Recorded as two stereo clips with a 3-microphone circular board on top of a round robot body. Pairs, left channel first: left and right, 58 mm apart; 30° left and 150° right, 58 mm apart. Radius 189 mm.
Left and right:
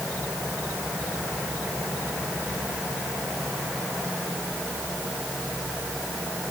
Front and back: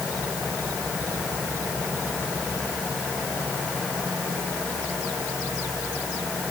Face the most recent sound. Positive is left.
No sound to turn to.